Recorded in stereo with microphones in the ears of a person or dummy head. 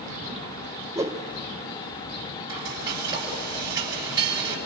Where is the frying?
25° right (ahead or behind), 6 m.